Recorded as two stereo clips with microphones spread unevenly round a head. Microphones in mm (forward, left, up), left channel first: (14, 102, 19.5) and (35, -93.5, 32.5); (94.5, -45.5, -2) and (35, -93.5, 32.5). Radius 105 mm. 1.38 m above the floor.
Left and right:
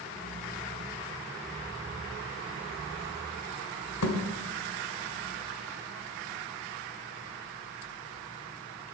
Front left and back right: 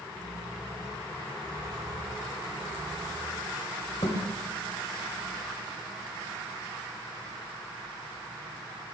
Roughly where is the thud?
Behind left.